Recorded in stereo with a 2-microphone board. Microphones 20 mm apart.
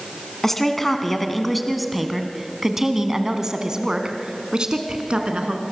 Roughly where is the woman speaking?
Centre.